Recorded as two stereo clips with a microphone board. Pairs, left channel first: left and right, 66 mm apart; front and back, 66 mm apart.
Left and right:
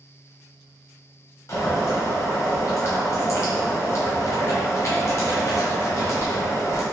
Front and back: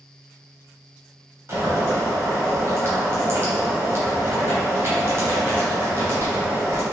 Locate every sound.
1.5 s boiling: 130° left, 1.5 m